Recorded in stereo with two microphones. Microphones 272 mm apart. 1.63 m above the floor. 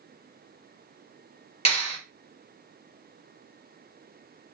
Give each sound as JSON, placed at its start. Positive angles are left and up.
{"t": 1.6, "sound": "a clap", "side_deg": 20, "distance_m": 1.0}